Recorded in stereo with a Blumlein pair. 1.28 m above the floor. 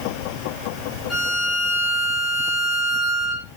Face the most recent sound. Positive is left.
turn(degrees=5)